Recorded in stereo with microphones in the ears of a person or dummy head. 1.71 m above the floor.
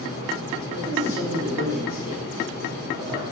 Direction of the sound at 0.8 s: 15° right (ahead or behind).